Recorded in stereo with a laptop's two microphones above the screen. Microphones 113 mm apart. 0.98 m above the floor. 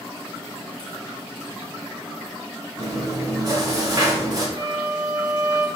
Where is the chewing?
35° right (ahead or behind), 3 m.